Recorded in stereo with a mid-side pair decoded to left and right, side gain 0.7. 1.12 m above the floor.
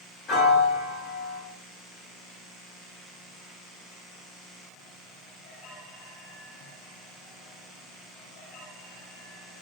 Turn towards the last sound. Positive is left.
turn(degrees=45)